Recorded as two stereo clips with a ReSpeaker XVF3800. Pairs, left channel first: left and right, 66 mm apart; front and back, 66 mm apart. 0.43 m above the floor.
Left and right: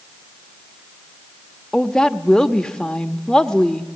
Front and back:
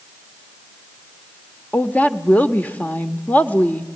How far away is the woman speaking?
About 0.9 m.